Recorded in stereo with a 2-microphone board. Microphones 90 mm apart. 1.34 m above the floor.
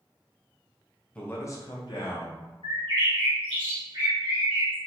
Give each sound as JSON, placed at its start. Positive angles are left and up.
{"t": 1.1, "sound": "a man speaking", "side_deg": 15, "distance_m": 0.8}
{"t": 2.6, "sound": "a bird", "side_deg": -70, "distance_m": 1.2}